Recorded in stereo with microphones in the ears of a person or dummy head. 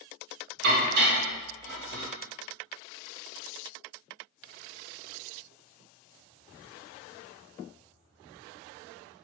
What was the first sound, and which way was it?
Dishes clattering, 65° right (ahead or behind).